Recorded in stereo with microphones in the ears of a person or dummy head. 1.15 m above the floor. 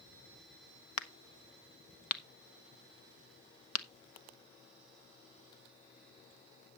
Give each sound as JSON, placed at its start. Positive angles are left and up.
{"t": 1.0, "sound": "a crack", "side_deg": 80, "distance_m": 0.9}